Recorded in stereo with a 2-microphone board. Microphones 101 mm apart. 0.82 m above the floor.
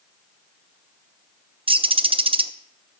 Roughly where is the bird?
Right.